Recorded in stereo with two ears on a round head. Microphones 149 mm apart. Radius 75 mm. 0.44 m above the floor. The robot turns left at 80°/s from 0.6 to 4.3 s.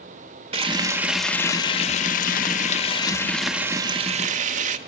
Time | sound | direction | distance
0.5 | frying | 130° right | 1.0 m